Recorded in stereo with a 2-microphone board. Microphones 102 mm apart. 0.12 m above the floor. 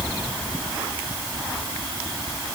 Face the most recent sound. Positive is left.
No sound to turn to.